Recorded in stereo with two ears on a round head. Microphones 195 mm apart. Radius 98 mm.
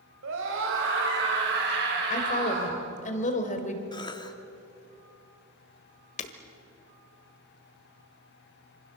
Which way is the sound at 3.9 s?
20° left (ahead or behind).